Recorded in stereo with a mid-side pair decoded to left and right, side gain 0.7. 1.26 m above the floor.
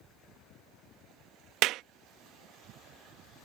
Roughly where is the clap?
Ahead right.